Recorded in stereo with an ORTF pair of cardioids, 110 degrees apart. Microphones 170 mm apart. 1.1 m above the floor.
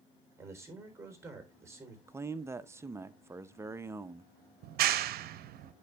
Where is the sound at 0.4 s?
15° right, 4 m.